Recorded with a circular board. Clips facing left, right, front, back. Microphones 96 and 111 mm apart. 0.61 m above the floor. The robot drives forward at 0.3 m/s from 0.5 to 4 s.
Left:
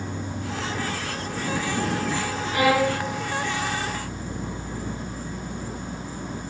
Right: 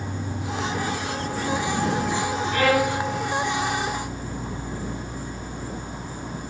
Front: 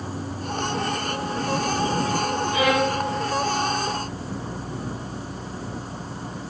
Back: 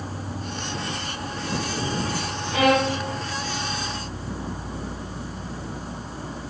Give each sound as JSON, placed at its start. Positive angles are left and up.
{"t": 0.0, "sound": "an insect", "azimuth_deg": 180, "distance_m": 4.5}
{"t": 2.5, "sound": "a violin", "azimuth_deg": 165, "distance_m": 2.0}